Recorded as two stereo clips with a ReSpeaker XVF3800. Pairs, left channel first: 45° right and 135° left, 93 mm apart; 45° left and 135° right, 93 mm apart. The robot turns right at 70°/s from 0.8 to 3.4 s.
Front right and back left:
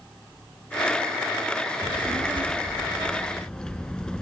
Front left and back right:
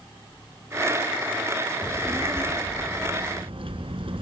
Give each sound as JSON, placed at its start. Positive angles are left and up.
{"t": 1.8, "sound": "a child speaking", "azimuth_deg": 120, "distance_m": 2.0}